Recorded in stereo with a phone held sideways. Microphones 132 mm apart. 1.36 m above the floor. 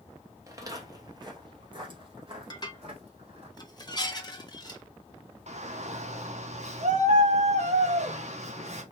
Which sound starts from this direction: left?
Dishes clattering, at 2.5 s.